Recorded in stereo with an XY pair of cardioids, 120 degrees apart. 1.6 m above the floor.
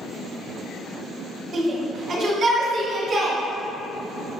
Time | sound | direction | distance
1.5 | a shout | 35° right | 1.5 m